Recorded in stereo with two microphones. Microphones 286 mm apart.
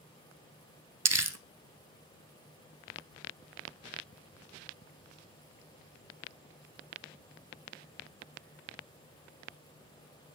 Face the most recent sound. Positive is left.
turn(degrees=-60)  # may be behind; listen again after turning